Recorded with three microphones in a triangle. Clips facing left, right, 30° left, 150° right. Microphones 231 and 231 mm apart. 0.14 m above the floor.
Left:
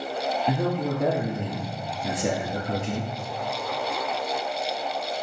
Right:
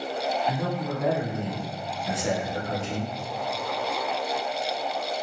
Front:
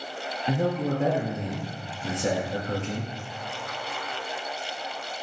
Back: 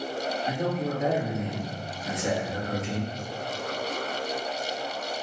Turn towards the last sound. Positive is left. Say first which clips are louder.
# left 4 dB, front 5 dB
turn(degrees=85)